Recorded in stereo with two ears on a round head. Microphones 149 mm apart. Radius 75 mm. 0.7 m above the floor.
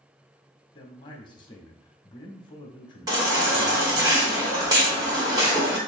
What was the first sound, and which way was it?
A man speaking, 25° left (ahead or behind).